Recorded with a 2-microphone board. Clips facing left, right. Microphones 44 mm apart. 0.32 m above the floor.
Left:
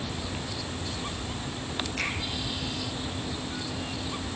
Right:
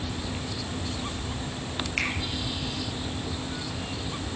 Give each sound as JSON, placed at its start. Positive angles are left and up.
{"t": 2.0, "sound": "a finger snap", "side_deg": -50, "distance_m": 6.0}